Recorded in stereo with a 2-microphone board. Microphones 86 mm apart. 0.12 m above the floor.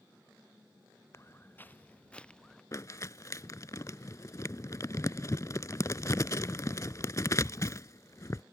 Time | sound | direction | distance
1.1 | footsteps | 35° left (ahead or behind) | ?
2.7 | crumpling | 40° left (ahead or behind) | ?